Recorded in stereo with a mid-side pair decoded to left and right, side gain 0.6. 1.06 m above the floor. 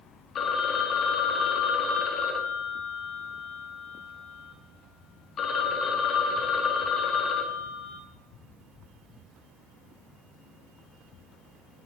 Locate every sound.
0.3 s a phone ringing: 45° left, 0.6 m